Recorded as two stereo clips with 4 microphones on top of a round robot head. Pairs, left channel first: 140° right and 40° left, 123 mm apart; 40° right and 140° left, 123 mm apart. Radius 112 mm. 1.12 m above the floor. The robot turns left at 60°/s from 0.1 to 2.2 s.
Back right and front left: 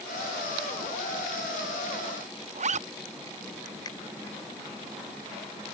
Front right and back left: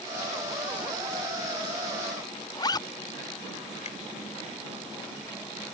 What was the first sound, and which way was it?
A zipper, 15° left.